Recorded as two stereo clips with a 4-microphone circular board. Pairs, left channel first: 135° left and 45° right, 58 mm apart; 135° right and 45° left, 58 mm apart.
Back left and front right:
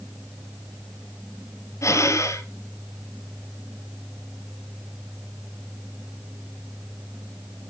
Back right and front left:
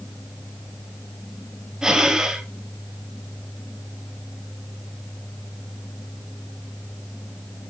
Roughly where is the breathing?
Behind left.